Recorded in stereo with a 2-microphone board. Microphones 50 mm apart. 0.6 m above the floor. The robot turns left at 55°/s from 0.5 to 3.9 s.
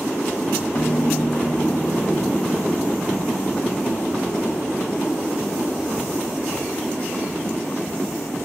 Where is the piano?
80° left, 1.7 m; by 3.4 s 70° right, 1.7 m.